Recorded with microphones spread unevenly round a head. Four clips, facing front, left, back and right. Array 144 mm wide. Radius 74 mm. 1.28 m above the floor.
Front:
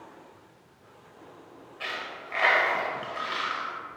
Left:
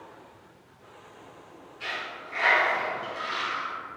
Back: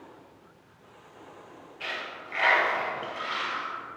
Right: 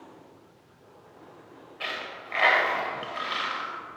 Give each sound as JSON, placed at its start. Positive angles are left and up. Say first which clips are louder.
{"t": 1.8, "sound": "a dropped coin", "louder": "even, front 1 dB", "azimuth_deg": -55, "distance_m": 1.4}